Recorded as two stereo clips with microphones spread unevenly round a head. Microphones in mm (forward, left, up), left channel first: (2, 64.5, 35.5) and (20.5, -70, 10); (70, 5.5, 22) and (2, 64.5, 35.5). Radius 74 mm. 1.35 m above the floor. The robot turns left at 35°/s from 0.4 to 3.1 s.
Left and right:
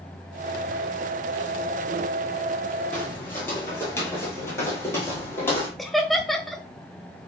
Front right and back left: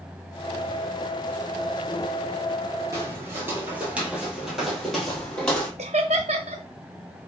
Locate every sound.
2.9 s footsteps: 155° left, 1.5 m; by 5.7 s 40° left, 1.7 m
5.8 s laughter: 175° right, 0.6 m